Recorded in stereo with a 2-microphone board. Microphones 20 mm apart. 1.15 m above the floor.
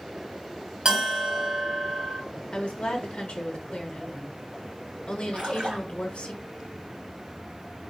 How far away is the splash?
About 1.4 m.